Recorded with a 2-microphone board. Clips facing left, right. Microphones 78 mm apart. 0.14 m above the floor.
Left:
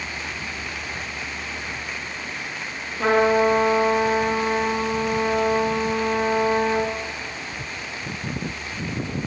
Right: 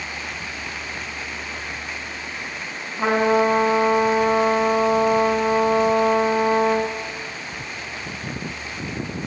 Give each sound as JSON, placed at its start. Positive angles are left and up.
{"t": 3.0, "sound": "a trumpet", "side_deg": -25, "distance_m": 8.5}